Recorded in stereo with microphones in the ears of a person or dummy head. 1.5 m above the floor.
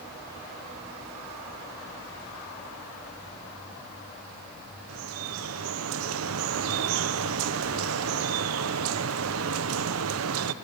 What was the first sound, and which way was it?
Dripping, 80° right.